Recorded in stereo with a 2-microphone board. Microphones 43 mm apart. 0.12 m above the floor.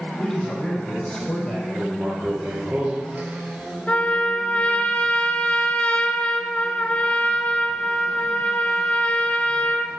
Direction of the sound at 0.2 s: 15° left (ahead or behind).